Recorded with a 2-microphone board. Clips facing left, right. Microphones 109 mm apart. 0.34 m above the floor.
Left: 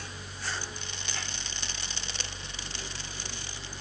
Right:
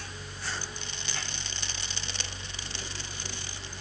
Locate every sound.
Only background noise.